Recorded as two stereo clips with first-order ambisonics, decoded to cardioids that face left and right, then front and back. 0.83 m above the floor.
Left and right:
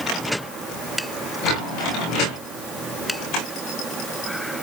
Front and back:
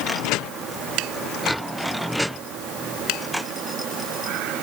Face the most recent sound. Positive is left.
No sound to turn to.